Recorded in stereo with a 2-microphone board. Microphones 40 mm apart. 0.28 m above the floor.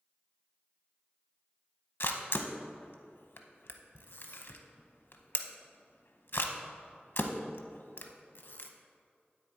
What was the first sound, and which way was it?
A camera shutter, 65° left (ahead or behind).